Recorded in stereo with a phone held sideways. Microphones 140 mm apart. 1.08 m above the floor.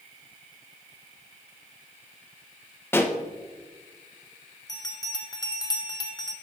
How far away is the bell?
About 0.9 m.